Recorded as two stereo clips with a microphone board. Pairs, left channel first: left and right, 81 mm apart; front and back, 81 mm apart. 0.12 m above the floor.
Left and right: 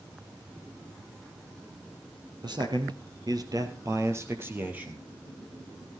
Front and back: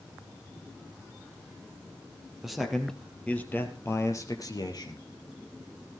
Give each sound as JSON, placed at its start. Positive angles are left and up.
{"t": 2.4, "sound": "a man speaking", "azimuth_deg": -95, "distance_m": 2.5}